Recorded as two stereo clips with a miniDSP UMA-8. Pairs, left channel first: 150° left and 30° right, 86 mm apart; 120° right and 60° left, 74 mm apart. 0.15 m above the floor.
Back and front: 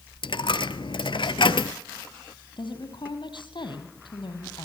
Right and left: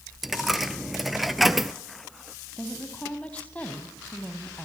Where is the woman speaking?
170° left, 4 m.